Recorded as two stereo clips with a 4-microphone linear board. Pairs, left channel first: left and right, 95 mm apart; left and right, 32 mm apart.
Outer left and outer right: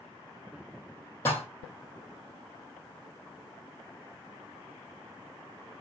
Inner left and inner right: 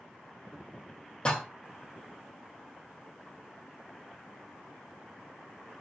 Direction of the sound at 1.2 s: 25° left (ahead or behind).